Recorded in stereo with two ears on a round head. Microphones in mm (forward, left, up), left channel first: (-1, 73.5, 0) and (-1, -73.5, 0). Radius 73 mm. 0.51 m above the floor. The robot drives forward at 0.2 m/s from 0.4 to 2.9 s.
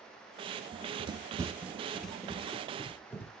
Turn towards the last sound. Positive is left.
turn(degrees=15)  # may be behind; listen again after turning